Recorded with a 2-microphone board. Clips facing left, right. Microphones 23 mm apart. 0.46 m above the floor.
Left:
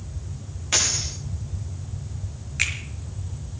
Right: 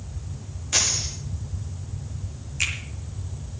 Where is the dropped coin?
60° left (ahead or behind), 9.5 m.